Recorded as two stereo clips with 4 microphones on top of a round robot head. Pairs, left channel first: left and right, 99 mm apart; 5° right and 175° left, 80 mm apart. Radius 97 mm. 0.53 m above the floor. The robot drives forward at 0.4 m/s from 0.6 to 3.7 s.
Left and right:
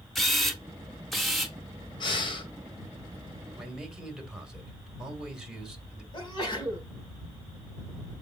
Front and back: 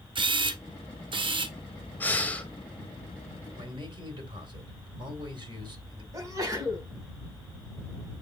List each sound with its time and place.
0.1 s a camera shutter: straight behind, 1.5 m
2.0 s breathing: 60° left, 2 m; by 2.5 s 65° left, 2.0 m
3.6 s a man speaking: 175° right, 3 m
6.1 s a sneeze: 130° left, 5.5 m